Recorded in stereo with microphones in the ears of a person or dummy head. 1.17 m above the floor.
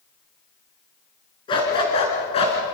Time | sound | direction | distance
1.5 | a dog barking | 25° left (ahead or behind) | 5 m